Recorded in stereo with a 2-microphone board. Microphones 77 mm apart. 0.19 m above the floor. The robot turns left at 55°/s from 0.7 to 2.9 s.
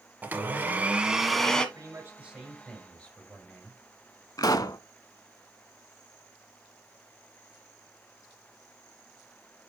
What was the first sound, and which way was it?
A blender, 145° right.